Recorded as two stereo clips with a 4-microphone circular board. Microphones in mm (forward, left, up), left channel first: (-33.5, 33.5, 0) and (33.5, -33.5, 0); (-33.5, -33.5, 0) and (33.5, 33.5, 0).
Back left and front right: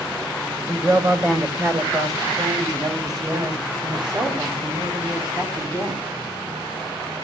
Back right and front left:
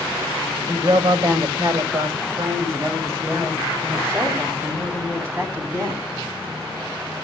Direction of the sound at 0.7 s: 10° left.